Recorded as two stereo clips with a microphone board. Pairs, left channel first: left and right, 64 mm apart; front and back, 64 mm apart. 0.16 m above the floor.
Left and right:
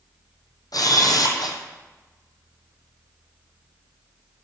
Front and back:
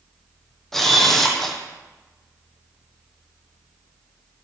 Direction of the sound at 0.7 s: 85° left.